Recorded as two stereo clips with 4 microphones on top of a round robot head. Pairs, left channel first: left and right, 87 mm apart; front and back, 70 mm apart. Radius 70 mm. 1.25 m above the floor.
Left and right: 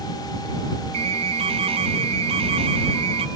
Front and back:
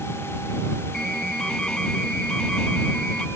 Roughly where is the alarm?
Right.